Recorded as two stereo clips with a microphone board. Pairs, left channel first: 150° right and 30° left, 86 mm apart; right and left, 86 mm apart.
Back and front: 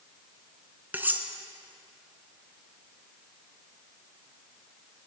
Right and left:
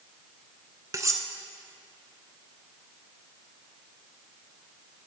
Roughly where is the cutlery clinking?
Left.